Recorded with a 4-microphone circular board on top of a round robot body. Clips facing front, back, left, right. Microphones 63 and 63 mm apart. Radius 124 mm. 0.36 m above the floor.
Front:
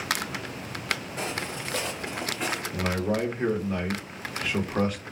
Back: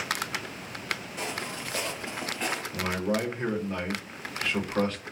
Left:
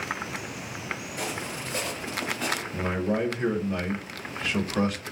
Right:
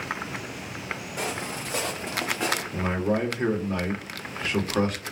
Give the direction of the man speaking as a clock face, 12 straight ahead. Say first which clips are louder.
Front 2 dB, even; 2 o'clock.